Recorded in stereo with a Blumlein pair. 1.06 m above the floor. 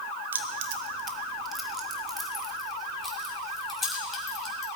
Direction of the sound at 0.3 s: 65° right.